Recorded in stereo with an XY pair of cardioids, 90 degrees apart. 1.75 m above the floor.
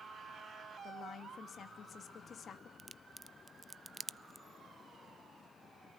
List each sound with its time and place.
0.8 s a woman speaking: 65° left, 3 m
2.8 s a crack: 10° right, 0.6 m